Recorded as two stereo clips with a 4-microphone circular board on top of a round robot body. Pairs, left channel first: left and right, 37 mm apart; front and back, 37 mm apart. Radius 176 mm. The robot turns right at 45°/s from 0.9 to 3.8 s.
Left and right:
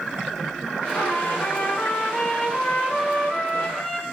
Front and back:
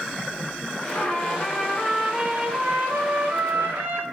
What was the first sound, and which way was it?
A trumpet, 50° left.